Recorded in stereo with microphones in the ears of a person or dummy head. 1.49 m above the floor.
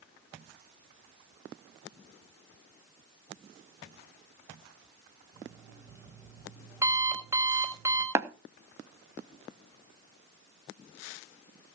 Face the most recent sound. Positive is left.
turn(degrees=-15)  # may be behind; listen again after turning